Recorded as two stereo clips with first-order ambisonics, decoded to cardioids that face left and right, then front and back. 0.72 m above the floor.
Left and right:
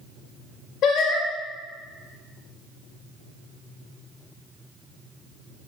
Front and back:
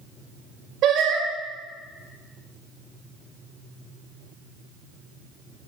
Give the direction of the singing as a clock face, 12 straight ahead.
7 o'clock.